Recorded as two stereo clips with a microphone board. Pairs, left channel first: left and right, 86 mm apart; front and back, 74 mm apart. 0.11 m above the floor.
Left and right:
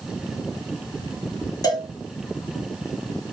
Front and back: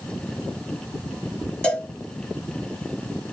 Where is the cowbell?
70° left, 0.9 m.